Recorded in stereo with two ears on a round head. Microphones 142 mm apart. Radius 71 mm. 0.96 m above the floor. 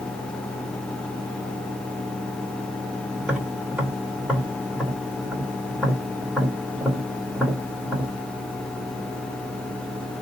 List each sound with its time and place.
3.2 s tapping: 5° right (ahead or behind), 2.5 m